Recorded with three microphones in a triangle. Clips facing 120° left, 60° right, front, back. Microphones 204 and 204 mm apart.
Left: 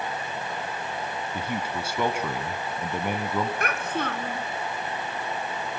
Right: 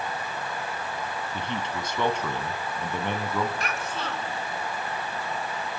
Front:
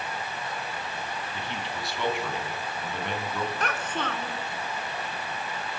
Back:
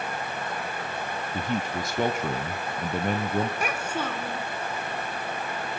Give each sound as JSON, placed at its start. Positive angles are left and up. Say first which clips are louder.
{"t": 1.3, "sound": "a man speaking", "louder": "left 2 dB, back 7 dB", "azimuth_deg": -160, "distance_m": 2.0}
{"t": 3.6, "sound": "a child speaking", "louder": "left 4 dB, back 1 dB", "azimuth_deg": 100, "distance_m": 2.0}